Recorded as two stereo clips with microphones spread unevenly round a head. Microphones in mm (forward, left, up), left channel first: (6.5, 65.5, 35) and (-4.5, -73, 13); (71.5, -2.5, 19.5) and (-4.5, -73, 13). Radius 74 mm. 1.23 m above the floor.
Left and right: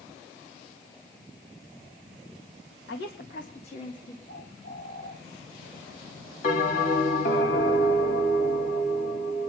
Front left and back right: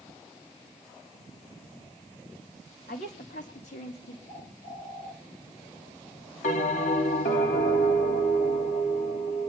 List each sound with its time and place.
2.9 s a woman speaking: 75° left, 1.8 m; by 4.2 s 20° left, 2.5 m
4.3 s a bird: 75° left, 10 m
6.4 s a bell: 50° left, 3 m